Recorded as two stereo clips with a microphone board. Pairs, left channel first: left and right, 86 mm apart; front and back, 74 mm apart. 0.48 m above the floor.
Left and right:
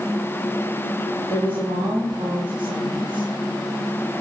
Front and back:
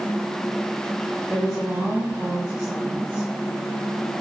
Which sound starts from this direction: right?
A woman speaking, at 1.3 s.